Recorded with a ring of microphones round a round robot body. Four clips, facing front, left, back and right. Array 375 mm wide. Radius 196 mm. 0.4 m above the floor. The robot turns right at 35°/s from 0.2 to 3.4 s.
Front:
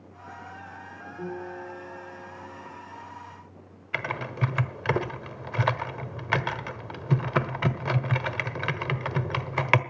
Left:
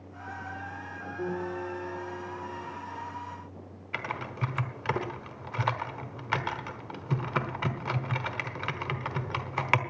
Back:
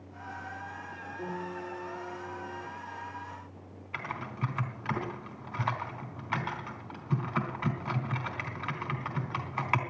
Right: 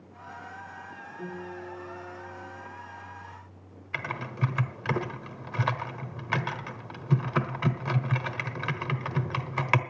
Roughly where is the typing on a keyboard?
Ahead.